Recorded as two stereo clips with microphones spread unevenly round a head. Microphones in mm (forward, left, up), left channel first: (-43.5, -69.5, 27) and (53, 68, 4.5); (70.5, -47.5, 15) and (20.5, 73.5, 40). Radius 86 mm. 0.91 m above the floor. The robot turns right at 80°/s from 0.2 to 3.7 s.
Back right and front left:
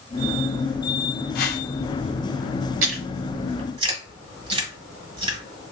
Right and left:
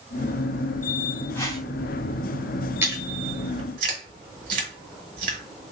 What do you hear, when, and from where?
1.4 s a whoosh: 150° right, 0.7 m; by 1.6 s 130° right, 0.7 m
2.8 s chewing: 45° left, 1.3 m; by 5.7 s 115° left, 1.3 m